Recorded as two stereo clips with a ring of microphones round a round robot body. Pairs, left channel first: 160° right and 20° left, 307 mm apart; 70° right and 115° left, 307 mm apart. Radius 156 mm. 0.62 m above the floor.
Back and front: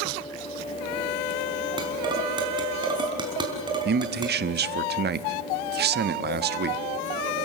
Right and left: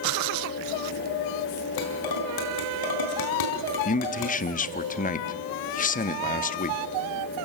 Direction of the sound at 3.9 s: 15° right.